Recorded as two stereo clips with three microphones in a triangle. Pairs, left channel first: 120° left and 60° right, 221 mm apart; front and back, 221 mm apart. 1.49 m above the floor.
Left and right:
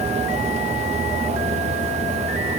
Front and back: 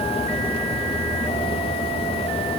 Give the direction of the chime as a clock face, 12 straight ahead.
No chime in this recording.